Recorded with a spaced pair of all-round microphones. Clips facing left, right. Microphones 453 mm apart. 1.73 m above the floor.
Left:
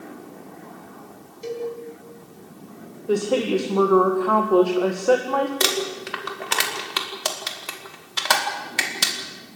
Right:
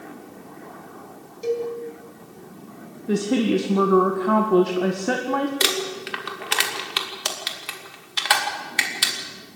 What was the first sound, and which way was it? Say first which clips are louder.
A cowbell: right 4 dB; 15° left (ahead or behind).